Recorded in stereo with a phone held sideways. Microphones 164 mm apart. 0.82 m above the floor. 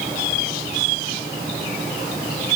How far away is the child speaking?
I don't hear a child speaking.